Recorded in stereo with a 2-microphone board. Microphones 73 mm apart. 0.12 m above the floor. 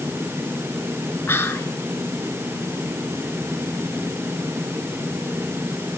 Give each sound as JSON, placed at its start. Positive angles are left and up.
{"t": 1.3, "sound": "whispering", "side_deg": 35, "distance_m": 1.7}